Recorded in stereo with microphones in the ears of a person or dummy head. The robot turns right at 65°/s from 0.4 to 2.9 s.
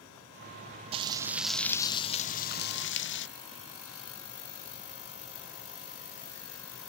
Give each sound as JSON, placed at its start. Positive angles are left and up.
{"t": 0.9, "sound": "frying", "azimuth_deg": -35, "distance_m": 0.7}